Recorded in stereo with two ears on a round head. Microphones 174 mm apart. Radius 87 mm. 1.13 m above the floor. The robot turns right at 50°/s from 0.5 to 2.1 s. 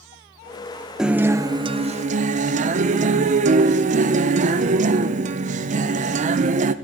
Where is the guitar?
175° right, 0.5 m; by 6.7 s 120° right, 0.5 m.